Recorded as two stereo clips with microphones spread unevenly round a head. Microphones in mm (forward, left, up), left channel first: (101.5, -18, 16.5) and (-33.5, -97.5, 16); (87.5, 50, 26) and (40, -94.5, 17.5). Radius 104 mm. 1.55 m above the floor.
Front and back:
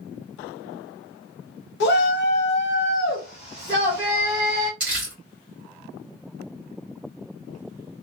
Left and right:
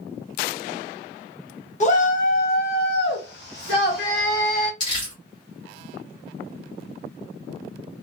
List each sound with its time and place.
1.8 s a shout: 30° left, 1.1 m; by 4.7 s 130° left, 1.2 m
4.8 s crumpling: 130° left, 1.1 m